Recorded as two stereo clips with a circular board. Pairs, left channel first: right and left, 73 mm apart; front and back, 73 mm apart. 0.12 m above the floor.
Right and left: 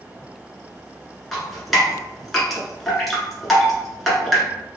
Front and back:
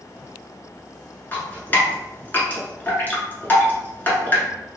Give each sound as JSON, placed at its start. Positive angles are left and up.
{"t": 1.3, "sound": "dripping", "azimuth_deg": -10, "distance_m": 1.2}